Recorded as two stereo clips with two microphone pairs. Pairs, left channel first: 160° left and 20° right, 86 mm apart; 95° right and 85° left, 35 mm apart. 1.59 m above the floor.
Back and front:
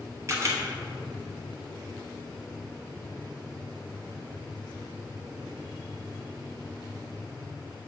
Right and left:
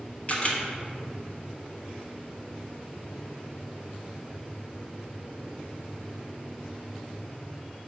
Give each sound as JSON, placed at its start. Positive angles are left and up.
{"t": 0.3, "sound": "a camera shutter", "azimuth_deg": -60, "distance_m": 1.2}